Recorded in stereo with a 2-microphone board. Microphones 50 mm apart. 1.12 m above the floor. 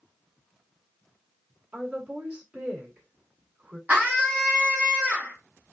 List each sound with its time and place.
1.7 s a woman speaking: 25° right (ahead or behind), 2 m
3.9 s a scream: 30° right (ahead or behind), 2 m